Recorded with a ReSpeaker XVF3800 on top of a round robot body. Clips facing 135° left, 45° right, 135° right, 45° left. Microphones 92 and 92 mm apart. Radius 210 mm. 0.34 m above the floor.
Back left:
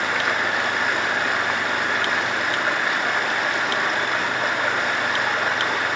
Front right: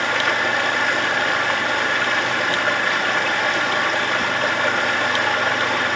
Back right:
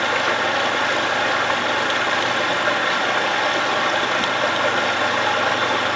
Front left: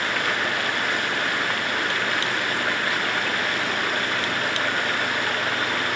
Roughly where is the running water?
Behind right.